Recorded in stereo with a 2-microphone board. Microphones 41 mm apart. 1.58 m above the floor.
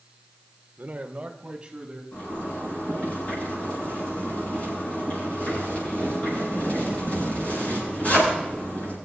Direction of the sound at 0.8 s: 40° right (ahead or behind).